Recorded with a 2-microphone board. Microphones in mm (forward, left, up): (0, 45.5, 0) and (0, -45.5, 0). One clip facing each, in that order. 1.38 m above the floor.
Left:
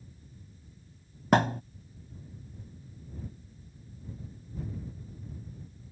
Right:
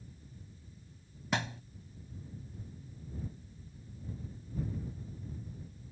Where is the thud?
50° left (ahead or behind).